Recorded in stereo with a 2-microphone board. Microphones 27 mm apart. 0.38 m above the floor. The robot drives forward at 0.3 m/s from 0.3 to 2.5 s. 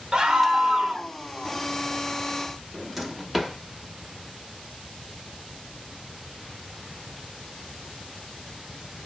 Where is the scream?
25° right (ahead or behind), 0.8 m.